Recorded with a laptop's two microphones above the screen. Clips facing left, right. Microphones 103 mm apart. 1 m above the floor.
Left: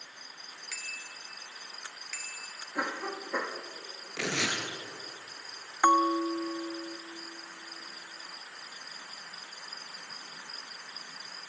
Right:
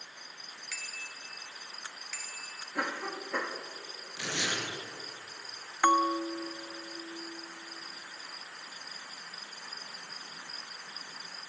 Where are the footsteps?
No footsteps in this recording.